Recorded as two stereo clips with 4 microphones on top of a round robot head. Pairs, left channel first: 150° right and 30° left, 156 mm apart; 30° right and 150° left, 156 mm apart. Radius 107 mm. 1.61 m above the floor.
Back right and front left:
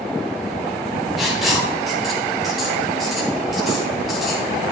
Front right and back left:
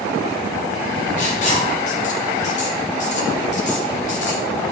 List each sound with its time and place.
1.2 s writing: 55° right, 1.0 m